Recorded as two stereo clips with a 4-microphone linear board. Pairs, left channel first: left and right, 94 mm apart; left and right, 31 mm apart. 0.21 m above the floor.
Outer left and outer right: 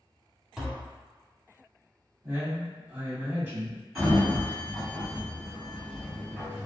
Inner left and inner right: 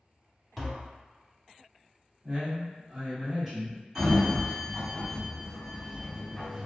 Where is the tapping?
5° right (ahead or behind), 0.7 m.